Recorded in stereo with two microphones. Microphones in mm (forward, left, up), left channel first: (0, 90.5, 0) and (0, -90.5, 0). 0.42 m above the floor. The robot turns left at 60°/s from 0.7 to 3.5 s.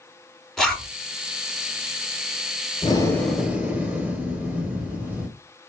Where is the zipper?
Centre (ahead or behind), 1.8 m; by 0.9 s 15° left (ahead or behind), 1.8 m.